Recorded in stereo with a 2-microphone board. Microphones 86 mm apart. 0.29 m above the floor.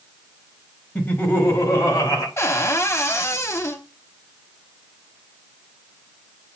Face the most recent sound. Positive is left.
turn(degrees=30)  # may be behind; listen again after turning